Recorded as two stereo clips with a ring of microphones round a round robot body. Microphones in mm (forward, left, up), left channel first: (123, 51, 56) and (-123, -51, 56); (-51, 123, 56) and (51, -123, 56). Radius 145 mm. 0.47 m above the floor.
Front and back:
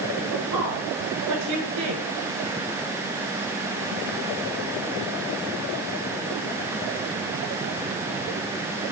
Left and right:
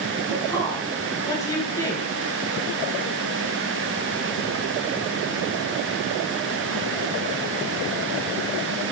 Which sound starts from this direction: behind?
A woman speaking, at 0.3 s.